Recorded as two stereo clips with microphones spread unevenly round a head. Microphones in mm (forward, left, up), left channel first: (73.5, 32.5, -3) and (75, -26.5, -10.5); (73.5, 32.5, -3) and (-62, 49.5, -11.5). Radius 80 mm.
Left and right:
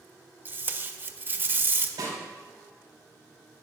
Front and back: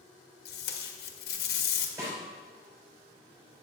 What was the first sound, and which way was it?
Tape being pulled, 40° right.